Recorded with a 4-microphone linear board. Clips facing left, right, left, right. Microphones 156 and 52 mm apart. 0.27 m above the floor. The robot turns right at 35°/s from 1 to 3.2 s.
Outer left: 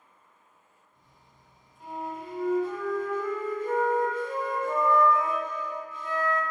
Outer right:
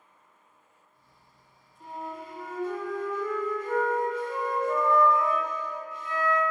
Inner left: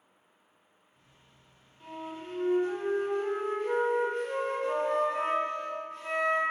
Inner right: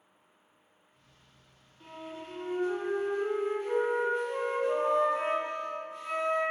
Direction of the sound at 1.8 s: 15° left.